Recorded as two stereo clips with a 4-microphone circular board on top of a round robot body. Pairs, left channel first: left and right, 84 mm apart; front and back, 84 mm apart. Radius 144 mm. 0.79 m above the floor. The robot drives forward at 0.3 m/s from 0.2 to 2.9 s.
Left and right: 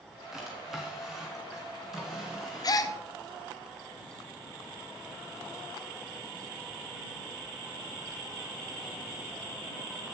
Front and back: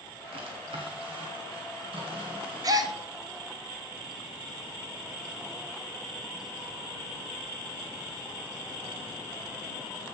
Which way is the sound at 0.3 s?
175° right.